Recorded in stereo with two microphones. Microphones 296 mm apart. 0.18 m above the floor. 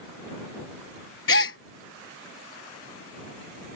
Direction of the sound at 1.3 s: 45° left (ahead or behind).